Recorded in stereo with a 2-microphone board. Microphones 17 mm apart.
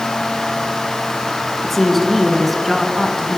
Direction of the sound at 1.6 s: 10° left (ahead or behind).